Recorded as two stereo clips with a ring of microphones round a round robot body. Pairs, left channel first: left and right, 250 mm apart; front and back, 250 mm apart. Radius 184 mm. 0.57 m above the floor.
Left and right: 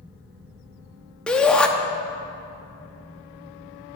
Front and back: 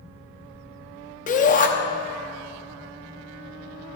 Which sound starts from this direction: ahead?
A shout, at 1.3 s.